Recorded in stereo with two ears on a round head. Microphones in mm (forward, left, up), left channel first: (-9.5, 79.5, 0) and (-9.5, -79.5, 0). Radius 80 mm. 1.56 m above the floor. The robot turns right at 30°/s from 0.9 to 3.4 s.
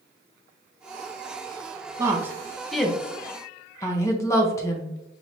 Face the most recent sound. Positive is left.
turn(degrees=15)  # may be behind; listen again after turning